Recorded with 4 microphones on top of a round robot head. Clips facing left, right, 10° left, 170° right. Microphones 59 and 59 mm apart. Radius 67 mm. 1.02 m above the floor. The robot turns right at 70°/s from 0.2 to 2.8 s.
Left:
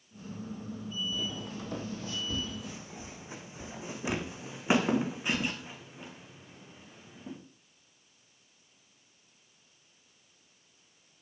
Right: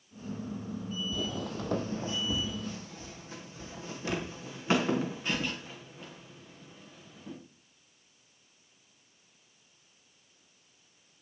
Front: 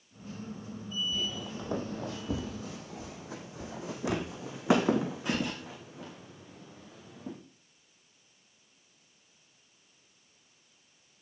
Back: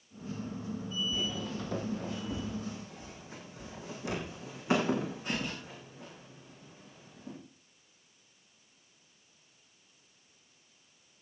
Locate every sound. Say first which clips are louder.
1.1 s footsteps: right 3 dB, back 1 dB; 95° right, 1.5 m; by 7.4 s 10° left, 4.5 m